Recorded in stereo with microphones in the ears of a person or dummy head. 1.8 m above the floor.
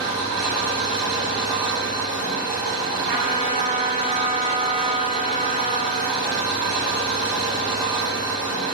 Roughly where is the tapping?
I don't hear tapping.